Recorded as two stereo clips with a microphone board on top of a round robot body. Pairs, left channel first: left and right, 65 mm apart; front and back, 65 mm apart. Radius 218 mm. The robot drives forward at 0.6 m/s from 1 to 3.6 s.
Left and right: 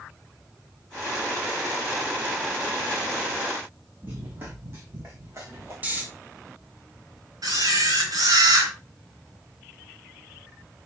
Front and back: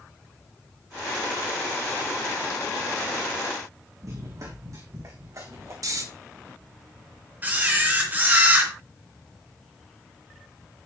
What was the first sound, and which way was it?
Running footsteps, 150° right.